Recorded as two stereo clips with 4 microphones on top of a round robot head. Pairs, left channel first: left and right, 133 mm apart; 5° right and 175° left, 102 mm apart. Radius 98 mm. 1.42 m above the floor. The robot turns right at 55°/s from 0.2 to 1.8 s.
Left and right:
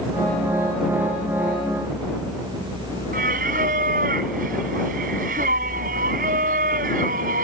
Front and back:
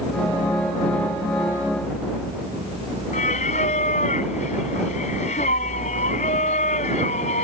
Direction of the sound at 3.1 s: 45° right.